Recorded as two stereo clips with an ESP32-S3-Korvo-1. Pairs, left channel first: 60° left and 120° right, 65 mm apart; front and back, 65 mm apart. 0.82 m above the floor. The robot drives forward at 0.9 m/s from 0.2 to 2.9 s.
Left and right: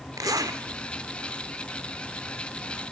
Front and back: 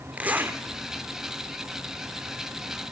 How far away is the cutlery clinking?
No cutlery clinking in this recording.